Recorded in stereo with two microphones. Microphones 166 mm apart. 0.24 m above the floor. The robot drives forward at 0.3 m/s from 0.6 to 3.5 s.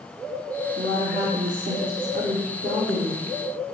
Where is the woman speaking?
55° right (ahead or behind), 6 m; by 3.3 s 60° right (ahead or behind), 6 m.